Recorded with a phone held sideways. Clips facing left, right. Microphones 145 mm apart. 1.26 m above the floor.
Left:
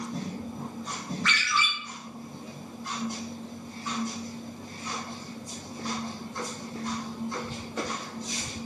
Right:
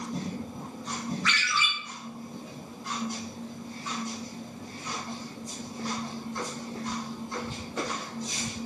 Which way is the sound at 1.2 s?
55° left (ahead or behind).